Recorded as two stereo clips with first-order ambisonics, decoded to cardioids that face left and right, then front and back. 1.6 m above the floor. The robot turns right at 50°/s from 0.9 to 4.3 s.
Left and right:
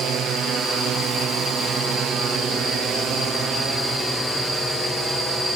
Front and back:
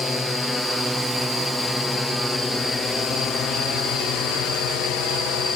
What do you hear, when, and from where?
0.0 s a drone: 75° right; by 5.6 s 15° right